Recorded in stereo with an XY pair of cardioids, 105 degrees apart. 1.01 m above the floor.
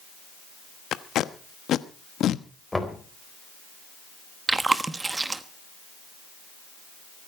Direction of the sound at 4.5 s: 25° right.